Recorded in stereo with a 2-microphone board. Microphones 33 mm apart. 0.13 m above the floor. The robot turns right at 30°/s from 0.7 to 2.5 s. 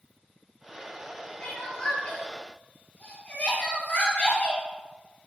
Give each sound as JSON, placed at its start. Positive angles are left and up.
{"t": 1.4, "sound": "crying", "side_deg": 20, "distance_m": 1.1}